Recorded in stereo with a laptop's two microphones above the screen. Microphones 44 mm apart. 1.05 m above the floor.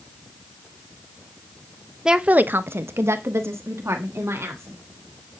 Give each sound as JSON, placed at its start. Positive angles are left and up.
{"t": 2.0, "sound": "a woman speaking", "side_deg": -10, "distance_m": 0.5}